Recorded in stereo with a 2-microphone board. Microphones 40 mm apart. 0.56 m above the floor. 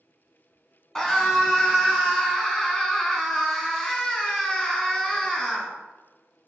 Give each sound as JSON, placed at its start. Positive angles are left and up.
{"t": 0.9, "sound": "a scream", "side_deg": 15, "distance_m": 1.5}